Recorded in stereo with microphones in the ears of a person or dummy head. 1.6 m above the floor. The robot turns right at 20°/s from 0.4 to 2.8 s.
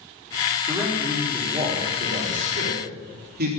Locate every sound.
0.7 s a man speaking: 170° right, 4 m; by 3.5 s 125° right, 4 m